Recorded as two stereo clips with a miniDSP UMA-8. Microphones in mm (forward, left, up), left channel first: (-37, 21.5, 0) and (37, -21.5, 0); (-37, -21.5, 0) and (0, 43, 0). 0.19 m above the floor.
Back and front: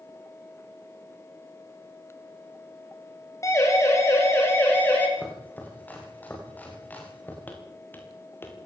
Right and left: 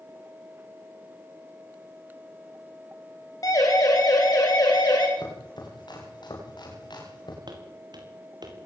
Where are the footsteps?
80° left, 7 m; by 8.6 s 85° left, 7 m.